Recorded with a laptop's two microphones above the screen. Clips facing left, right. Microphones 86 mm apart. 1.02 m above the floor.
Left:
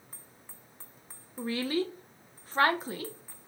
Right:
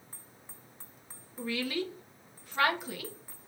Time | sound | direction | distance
1.4 | a woman speaking | 35° left (ahead or behind) | 0.6 m